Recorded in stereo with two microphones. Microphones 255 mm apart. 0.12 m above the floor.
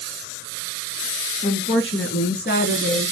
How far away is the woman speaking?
About 1.8 m.